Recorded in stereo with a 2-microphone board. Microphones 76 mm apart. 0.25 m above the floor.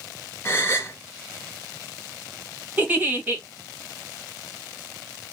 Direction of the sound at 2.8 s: 20° right (ahead or behind).